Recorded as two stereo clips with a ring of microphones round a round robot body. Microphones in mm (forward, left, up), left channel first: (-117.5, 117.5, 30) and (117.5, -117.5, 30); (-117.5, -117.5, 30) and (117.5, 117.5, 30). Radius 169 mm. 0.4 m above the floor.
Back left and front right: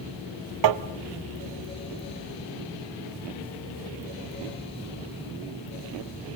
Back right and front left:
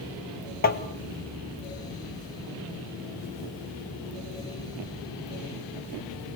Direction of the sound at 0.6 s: 70° right.